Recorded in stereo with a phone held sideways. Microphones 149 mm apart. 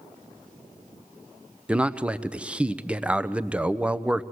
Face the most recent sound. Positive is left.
turn(degrees=-10)  # may be behind; listen again after turning